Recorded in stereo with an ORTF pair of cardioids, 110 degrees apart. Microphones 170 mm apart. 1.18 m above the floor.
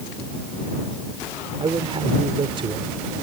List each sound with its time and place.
1.6 s a man speaking: 30° right